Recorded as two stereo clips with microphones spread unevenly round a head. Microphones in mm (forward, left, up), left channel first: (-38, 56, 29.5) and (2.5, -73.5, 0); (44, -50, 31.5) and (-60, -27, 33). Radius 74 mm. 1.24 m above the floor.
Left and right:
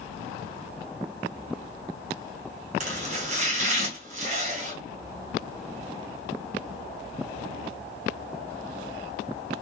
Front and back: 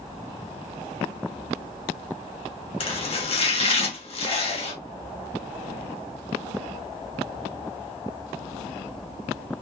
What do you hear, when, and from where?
2.8 s chopping: 40° right, 1.7 m